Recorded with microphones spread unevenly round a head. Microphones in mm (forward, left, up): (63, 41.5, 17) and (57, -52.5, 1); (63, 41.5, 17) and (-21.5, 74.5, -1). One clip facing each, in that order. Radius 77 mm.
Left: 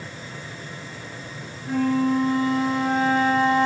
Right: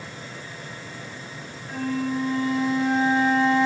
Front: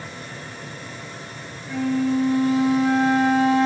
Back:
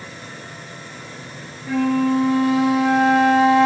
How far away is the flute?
About 1.0 m.